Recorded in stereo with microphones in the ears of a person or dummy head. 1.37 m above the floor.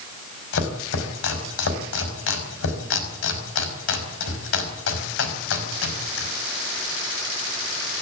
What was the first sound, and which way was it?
Chopping, 80° left.